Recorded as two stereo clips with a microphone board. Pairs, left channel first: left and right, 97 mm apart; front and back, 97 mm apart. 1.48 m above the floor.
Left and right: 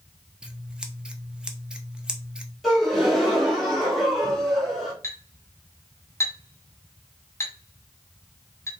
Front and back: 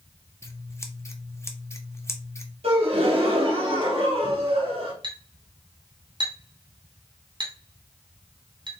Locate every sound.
0.4 s scissors: 15° right, 0.7 m
2.6 s a gasp: straight behind, 1.7 m
5.0 s a clink: 155° left, 2 m